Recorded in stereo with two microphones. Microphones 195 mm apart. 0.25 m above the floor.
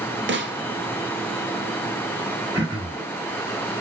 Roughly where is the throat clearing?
Right.